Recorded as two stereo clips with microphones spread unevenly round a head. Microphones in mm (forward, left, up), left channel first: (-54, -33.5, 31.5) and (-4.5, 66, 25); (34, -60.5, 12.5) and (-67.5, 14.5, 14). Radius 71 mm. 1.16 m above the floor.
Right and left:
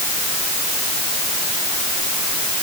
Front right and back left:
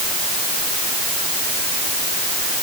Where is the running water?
No running water in this recording.